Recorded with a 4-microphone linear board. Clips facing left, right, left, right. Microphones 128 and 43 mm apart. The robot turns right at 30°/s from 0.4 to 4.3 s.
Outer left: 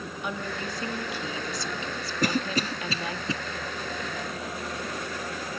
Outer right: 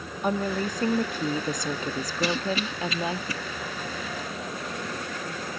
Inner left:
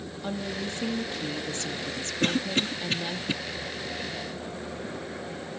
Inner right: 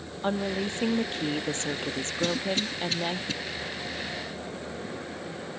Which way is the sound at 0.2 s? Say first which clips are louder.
Outer right 8 dB, inner right 5 dB; 115° right.